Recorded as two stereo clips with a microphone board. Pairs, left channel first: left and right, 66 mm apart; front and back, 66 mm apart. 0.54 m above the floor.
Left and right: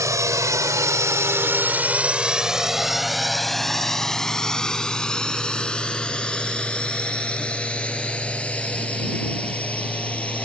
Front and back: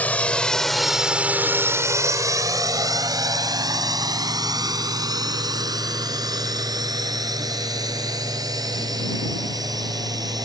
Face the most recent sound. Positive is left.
turn(degrees=160)